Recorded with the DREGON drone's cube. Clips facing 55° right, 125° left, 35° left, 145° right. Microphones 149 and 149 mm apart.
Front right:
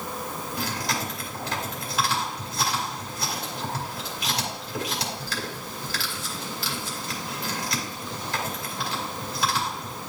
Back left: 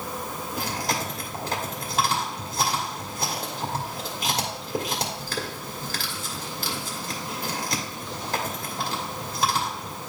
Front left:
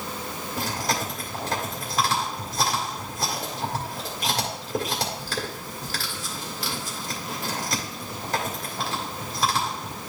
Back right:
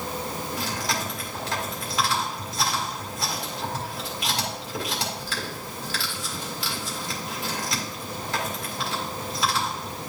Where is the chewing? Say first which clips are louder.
Back left 2 dB, front left 5 dB; 85° left, 2.5 m.